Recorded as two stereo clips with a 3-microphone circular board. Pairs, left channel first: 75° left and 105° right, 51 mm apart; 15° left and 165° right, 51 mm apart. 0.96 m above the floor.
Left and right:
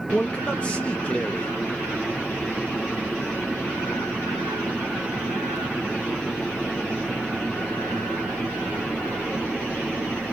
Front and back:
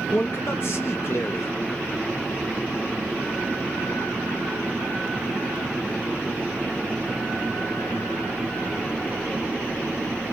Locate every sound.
0.1 s a man speaking: 10° left, 0.8 m